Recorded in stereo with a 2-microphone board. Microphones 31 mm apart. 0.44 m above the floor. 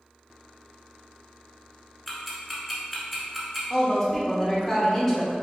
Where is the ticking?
5° right (ahead or behind), 1.1 m.